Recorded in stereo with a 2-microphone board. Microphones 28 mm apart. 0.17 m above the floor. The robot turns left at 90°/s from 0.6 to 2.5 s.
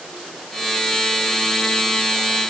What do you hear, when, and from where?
Only background noise.